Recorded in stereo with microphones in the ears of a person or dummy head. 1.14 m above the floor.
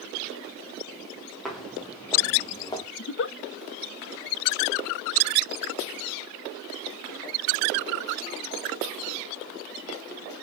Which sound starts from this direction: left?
A giggle, at 3.0 s.